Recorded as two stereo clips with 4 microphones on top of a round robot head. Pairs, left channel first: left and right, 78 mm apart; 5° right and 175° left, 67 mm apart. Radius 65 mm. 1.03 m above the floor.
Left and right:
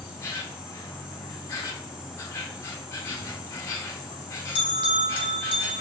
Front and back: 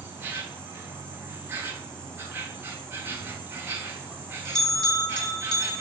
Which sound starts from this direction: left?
A bell, at 3.1 s.